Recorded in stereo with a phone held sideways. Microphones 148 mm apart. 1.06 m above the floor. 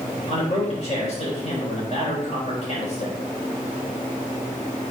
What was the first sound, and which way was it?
A man speaking, 50° left (ahead or behind).